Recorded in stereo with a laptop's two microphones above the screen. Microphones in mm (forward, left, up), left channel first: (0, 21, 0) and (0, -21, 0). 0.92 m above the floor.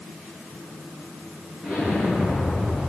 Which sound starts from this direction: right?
An explosion, at 1.6 s.